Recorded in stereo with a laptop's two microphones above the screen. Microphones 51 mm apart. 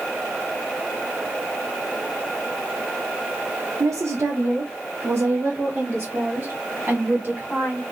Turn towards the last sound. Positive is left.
turn(degrees=-35)  # may be behind; listen again after turning